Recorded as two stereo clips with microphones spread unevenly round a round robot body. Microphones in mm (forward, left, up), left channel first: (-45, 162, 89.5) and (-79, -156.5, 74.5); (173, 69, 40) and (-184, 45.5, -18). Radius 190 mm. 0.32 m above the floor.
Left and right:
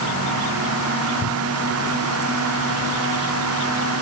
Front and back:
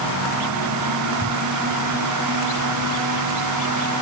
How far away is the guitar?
I don't hear a guitar.